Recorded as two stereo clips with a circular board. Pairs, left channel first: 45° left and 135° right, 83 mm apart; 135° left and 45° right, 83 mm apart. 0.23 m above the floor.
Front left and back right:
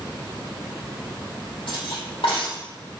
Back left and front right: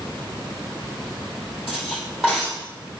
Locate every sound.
1.7 s cutlery clinking: 40° left, 4 m